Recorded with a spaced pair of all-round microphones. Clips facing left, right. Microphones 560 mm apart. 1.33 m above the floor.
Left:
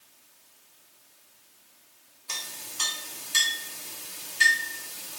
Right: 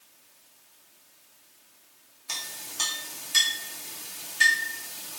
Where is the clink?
10° right (ahead or behind), 0.8 m.